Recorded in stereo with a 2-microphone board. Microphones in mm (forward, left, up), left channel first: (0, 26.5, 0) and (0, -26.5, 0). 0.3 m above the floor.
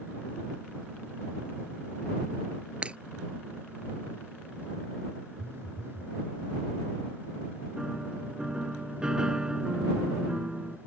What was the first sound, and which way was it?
Breaking glass, 20° right (ahead or behind).